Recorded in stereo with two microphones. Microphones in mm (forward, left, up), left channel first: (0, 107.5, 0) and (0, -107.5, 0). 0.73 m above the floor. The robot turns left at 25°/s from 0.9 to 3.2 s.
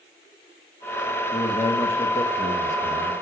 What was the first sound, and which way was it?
A man speaking, 140° left.